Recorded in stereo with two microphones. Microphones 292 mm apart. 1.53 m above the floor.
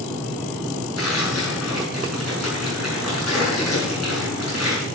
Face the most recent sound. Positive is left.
turn(degrees=60)  # may be behind; listen again after turning